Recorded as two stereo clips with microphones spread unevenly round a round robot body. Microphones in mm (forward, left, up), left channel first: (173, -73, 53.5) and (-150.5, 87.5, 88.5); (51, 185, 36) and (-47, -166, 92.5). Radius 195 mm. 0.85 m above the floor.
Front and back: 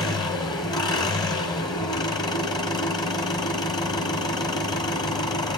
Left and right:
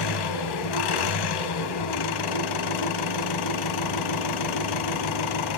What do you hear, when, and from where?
0.0 s an engine running: 50° left, 2.5 m